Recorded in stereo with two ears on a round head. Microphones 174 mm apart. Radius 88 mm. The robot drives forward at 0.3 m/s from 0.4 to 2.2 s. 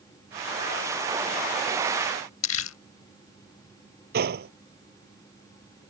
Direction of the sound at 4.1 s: 55° right (ahead or behind).